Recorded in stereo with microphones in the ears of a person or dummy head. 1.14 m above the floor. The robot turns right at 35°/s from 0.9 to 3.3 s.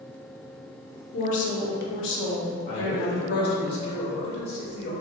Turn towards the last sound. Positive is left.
turn(degrees=55)  # may be behind; listen again after turning